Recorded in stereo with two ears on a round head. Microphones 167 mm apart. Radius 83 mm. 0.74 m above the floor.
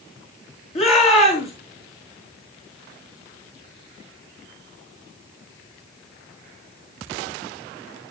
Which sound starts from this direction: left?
A shout, at 0.8 s.